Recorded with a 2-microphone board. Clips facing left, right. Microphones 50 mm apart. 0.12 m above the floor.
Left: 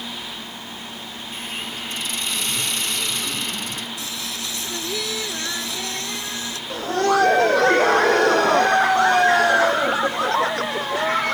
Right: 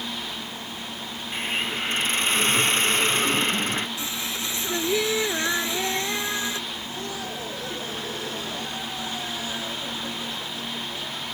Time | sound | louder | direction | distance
1.3 | a hiss | right 5 dB | 35° right (ahead or behind) | ?
4.0 | singing | even | 25° right (ahead or behind) | ?
6.7 | laughter | left 14 dB | 65° left (ahead or behind) | ?